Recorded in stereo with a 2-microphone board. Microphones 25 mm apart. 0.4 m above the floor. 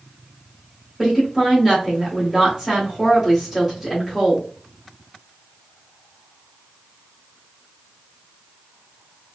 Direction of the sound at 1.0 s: 5° right (ahead or behind).